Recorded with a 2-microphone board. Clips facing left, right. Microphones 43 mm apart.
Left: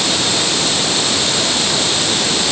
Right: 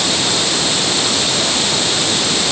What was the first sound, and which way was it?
Only background noise.